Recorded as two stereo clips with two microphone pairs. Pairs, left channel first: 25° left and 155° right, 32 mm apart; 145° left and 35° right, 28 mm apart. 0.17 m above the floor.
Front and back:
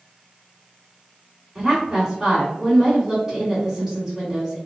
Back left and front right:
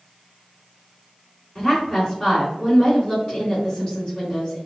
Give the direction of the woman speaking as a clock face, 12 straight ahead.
8 o'clock.